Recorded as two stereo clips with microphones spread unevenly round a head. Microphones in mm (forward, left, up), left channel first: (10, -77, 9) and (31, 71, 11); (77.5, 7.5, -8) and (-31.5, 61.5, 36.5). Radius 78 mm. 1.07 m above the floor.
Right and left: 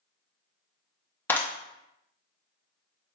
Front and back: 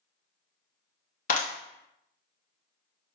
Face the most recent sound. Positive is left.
turn(degrees=-20)